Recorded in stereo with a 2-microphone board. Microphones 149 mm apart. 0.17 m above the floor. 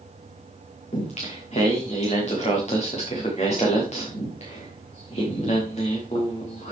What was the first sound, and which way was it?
Singing, 50° left (ahead or behind).